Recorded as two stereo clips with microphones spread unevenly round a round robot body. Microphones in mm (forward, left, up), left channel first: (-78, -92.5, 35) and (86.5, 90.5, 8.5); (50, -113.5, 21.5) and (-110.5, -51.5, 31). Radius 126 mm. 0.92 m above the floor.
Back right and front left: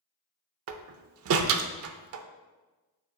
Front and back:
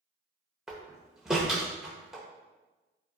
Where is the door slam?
70° left, 0.6 m.